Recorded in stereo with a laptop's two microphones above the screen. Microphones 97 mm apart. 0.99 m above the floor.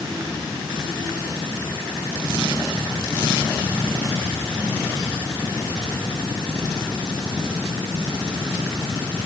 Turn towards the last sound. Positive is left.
No sound to turn to.